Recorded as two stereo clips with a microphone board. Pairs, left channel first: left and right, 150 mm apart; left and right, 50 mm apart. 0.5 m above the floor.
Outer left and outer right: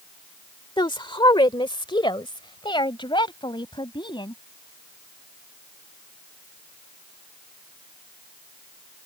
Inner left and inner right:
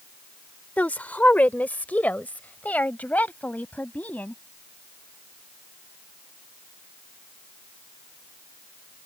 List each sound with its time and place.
0.8 s a woman speaking: 30° left (ahead or behind)